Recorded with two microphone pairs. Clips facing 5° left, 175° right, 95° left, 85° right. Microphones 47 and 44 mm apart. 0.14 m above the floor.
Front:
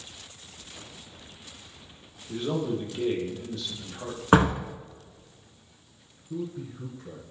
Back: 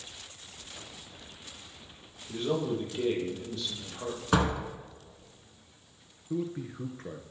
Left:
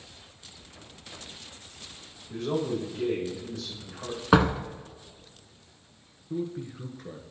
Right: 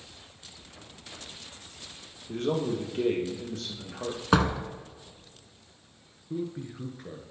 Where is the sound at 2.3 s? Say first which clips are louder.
Front 1 dB, right 1 dB; 80° right, 3 m.